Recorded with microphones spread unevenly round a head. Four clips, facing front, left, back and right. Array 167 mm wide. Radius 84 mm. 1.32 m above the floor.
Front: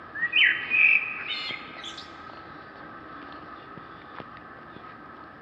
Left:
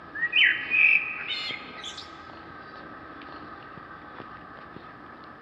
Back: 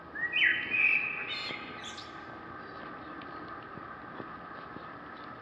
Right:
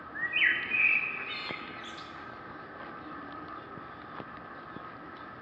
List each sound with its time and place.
0.1 s a bird: 55° left, 0.5 m